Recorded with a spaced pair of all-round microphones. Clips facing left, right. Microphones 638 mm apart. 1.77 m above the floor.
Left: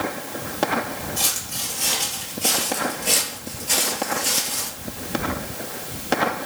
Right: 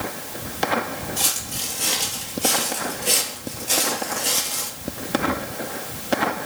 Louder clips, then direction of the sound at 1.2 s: Right 1 dB; centre (ahead or behind).